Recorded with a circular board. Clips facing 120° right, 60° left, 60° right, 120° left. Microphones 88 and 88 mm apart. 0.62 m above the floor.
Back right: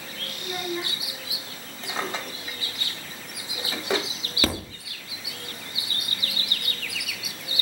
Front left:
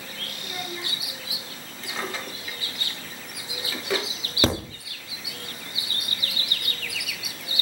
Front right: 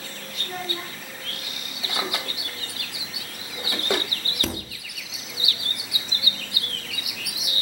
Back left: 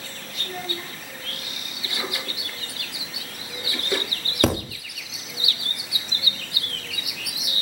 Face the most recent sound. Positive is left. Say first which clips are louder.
# front left 4 dB, back left 11 dB
turn(degrees=125)